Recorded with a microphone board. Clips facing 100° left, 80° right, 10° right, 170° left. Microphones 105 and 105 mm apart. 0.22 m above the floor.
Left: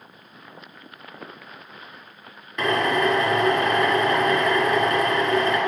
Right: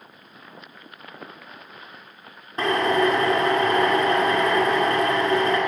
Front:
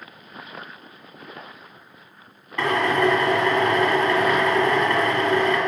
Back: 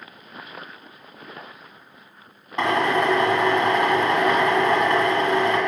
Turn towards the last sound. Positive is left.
turn(degrees=-125)